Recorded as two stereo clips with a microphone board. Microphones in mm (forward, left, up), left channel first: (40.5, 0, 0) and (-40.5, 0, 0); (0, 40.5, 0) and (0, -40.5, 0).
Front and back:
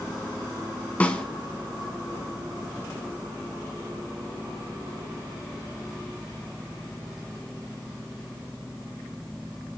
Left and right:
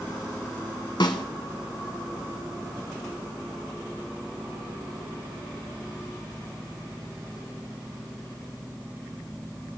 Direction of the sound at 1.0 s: 70° left.